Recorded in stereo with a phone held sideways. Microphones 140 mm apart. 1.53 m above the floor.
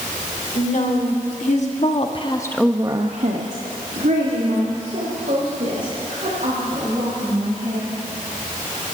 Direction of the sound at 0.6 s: 70° left (ahead or behind).